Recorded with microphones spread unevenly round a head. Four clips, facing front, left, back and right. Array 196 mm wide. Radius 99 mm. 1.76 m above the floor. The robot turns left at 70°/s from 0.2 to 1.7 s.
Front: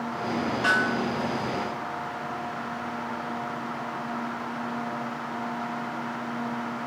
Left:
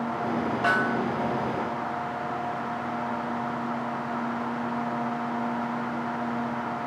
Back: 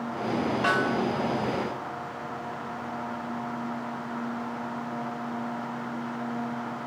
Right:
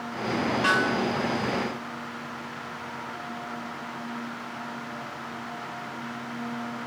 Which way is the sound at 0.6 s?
165° left.